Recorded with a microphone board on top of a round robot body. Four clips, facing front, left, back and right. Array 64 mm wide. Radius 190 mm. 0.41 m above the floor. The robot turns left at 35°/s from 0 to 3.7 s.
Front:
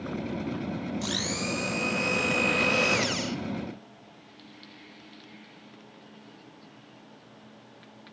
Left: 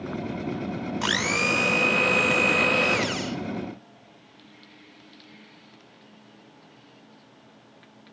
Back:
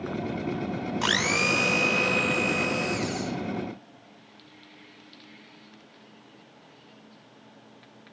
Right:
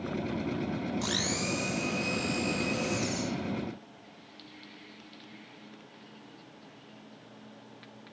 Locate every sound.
1.0 s a blender: 140° left, 1.4 m; by 3.4 s 55° left, 1.4 m